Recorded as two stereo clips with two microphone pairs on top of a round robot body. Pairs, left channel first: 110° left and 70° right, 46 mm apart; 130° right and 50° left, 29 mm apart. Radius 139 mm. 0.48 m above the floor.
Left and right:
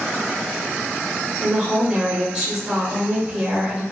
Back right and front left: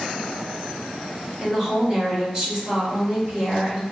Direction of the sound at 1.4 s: 15° right.